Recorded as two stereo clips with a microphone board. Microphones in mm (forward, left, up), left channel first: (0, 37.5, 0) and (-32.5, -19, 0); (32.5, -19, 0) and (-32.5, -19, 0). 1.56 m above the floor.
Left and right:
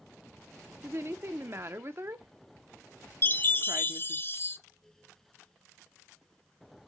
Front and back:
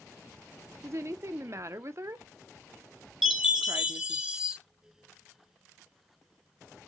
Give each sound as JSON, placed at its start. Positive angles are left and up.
{"t": 0.8, "sound": "a woman speaking", "azimuth_deg": -155, "distance_m": 0.7}
{"t": 3.2, "sound": "a chime", "azimuth_deg": 100, "distance_m": 1.1}